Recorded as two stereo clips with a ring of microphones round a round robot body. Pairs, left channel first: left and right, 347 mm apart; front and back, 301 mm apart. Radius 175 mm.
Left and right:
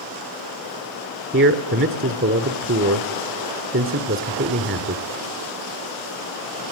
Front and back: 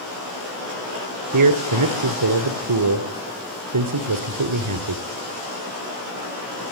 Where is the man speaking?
145° right, 2.5 m.